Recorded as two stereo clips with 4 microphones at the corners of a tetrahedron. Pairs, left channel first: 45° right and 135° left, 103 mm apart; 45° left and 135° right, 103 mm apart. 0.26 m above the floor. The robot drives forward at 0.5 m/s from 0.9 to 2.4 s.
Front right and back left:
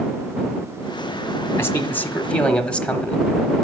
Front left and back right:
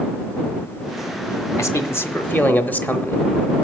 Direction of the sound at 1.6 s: 5° left.